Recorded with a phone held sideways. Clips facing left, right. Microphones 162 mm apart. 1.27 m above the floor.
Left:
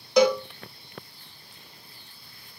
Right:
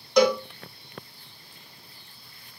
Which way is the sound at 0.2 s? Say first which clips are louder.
Even; 5° left (ahead or behind).